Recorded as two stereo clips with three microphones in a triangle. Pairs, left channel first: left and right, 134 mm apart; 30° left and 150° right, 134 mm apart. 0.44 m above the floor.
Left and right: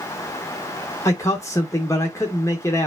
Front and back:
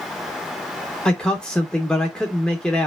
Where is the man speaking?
105° left, 0.7 m.